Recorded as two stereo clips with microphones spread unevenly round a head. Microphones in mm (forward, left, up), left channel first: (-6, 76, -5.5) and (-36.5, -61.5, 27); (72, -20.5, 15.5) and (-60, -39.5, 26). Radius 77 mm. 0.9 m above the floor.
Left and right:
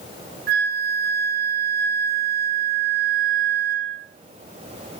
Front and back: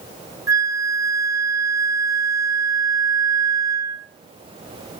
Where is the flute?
105° right, 1.4 m.